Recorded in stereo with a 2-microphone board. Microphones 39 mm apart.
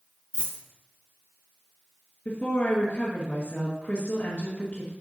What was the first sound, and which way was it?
A dropped coin, 80° right.